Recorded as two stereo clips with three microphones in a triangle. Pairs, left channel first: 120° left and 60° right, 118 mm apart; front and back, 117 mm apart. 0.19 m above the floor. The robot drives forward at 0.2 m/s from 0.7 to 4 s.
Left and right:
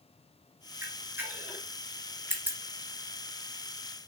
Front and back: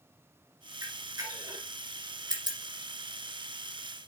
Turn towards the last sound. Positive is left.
turn(degrees=-140)